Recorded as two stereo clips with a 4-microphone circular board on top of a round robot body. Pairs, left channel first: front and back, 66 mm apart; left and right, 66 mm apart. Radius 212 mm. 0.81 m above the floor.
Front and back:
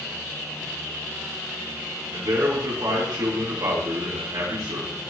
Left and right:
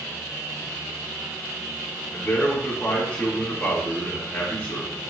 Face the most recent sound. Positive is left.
turn(degrees=165)